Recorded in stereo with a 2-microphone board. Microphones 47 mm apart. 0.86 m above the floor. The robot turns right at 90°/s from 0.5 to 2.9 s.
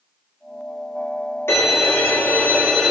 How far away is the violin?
About 2.5 m.